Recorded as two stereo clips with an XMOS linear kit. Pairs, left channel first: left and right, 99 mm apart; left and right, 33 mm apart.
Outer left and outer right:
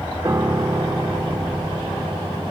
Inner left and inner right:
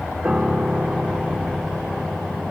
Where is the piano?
30° right (ahead or behind).